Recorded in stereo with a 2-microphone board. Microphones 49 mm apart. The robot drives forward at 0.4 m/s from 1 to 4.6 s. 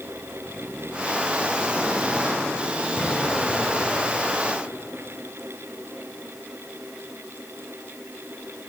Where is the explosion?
10° left (ahead or behind), 6 m.